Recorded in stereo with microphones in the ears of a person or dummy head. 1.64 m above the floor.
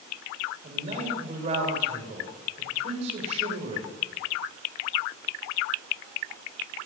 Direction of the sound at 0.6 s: 40° right (ahead or behind).